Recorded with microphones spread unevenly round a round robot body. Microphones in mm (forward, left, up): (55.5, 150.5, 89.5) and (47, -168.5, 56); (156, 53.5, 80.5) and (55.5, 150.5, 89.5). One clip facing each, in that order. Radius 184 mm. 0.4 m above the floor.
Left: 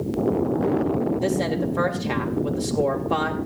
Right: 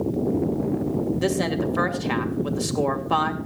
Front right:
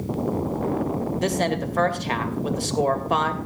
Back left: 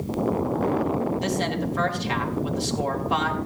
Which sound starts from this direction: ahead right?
A woman speaking, at 1.2 s.